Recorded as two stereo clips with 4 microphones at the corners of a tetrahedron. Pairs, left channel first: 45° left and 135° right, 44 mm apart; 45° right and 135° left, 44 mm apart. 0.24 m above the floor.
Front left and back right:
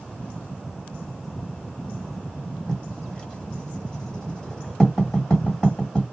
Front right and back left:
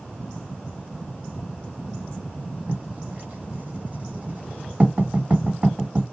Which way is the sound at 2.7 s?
115° left.